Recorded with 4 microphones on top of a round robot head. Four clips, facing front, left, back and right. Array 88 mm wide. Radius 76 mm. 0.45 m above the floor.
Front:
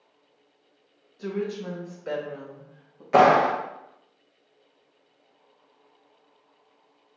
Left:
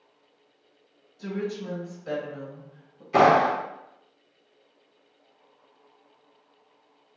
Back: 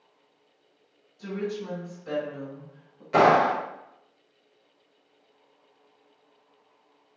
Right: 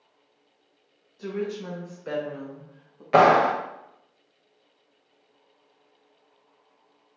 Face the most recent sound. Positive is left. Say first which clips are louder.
# right 1 dB, front 2 dB
turn(degrees=-65)